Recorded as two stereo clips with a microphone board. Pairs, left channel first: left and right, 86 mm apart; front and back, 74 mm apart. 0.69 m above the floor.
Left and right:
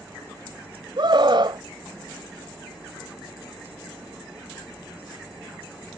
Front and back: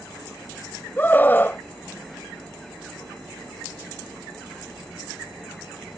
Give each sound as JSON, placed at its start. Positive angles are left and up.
{"t": 1.0, "sound": "a scream", "azimuth_deg": -65}